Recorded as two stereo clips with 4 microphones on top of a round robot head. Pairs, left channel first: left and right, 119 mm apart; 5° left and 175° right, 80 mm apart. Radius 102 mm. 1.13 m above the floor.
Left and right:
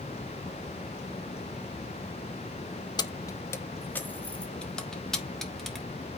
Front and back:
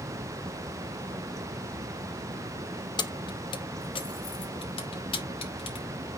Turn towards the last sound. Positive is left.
turn(degrees=0)